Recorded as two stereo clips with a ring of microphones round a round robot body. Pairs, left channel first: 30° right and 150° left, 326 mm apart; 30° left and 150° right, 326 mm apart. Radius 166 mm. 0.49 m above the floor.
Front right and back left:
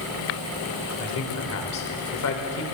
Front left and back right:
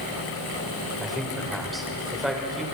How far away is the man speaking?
About 2.5 m.